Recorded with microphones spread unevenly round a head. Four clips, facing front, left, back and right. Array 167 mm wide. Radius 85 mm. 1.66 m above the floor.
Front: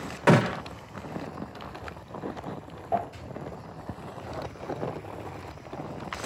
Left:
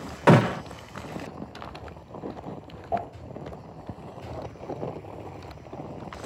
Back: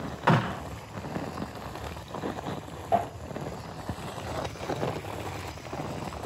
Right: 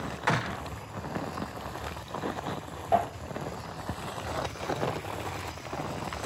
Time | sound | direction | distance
0.3 | a gunshot | 65° left | ?